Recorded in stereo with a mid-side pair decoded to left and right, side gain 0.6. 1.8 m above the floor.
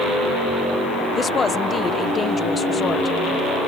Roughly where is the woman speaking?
Ahead left.